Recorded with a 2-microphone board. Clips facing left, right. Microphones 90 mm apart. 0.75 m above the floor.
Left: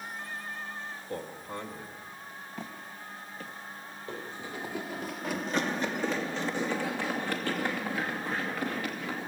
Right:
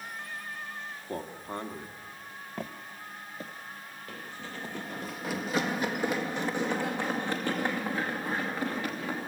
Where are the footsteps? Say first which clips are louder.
Right 4 dB; 60° right (ahead or behind), 1.3 m; by 4.8 s 20° left (ahead or behind), 1.7 m.